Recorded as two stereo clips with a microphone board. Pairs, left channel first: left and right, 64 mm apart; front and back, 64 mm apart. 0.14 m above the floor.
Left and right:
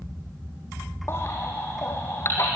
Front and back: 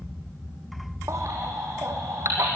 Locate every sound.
1.1 s a baby crying: 140° left, 3.5 m